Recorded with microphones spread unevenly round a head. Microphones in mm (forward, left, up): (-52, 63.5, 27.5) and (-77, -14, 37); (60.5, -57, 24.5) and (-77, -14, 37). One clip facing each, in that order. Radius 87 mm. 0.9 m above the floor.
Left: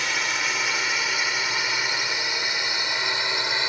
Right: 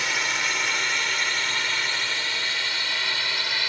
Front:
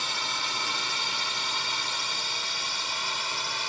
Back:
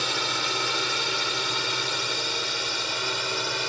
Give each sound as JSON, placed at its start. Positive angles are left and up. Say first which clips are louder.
{"t": 0.0, "sound": "a drone", "louder": "even, back 5 dB", "azimuth_deg": 160}